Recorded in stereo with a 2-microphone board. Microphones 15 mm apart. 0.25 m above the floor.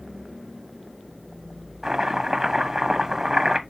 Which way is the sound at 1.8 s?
35° right (ahead or behind).